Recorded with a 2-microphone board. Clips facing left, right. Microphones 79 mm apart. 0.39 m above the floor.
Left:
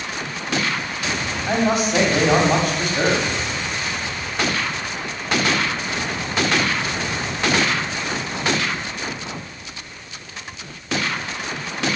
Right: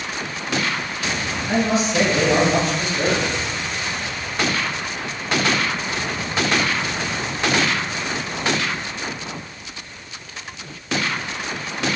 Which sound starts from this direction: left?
A man speaking, at 1.5 s.